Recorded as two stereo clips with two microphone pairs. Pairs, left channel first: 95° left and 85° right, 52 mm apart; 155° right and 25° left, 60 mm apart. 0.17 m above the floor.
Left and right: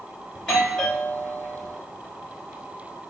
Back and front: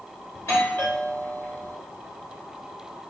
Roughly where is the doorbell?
Behind.